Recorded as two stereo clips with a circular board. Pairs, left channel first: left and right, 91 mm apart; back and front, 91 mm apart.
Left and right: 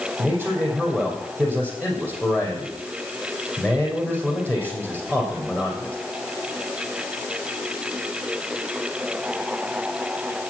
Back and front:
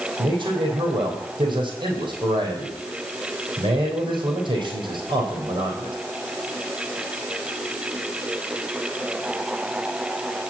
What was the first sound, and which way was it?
A man speaking, 25° right.